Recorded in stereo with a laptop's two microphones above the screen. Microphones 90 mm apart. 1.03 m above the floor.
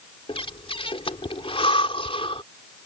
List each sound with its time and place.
0.3 s breathing: 75° left (ahead or behind)